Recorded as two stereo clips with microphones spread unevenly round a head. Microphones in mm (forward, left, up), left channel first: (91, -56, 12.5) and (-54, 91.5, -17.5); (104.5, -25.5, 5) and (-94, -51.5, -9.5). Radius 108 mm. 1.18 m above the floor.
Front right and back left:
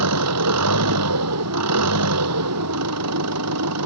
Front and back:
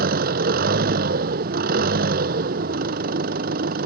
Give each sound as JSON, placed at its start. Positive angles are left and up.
{"t": 0.0, "sound": "an engine running", "azimuth_deg": 135}